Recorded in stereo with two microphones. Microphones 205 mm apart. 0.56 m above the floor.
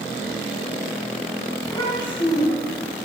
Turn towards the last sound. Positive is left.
turn(degrees=25)  # may be behind; listen again after turning